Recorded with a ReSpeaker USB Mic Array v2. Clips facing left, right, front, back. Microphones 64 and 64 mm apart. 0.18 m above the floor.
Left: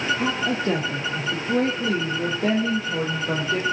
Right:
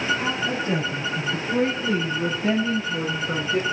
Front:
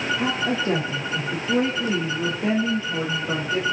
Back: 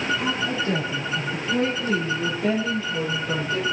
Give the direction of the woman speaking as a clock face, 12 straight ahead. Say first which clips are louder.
Left 1 dB, front 1 dB; 10 o'clock.